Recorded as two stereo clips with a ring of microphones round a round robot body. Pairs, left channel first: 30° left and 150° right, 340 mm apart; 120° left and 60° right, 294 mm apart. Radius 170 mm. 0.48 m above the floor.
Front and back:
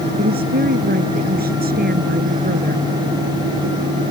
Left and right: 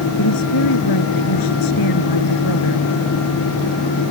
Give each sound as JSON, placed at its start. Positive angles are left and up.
{"t": 0.2, "sound": "a woman speaking", "azimuth_deg": 145}